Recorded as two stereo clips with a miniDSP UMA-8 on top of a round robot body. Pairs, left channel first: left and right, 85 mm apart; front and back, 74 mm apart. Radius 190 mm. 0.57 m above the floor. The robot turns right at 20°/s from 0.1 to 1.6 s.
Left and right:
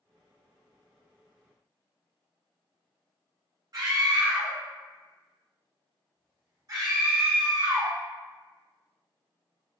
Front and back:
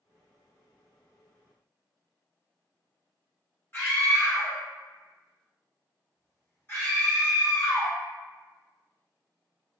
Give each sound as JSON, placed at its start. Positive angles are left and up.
{"t": 3.7, "sound": "a scream", "azimuth_deg": -55, "distance_m": 1.3}